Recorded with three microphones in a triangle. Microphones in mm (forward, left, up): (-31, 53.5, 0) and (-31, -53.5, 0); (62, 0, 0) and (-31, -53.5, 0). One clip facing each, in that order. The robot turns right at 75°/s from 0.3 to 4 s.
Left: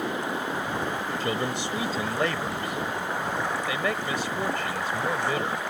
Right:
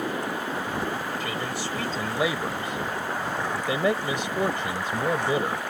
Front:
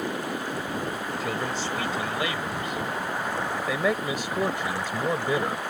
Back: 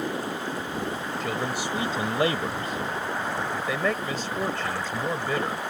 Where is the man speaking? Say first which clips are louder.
Left 2 dB, back 1 dB; 115° left; by 5.6 s 35° right.